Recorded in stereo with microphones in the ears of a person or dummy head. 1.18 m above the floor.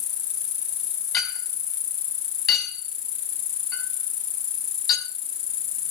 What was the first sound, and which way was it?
An insect, 55° left (ahead or behind).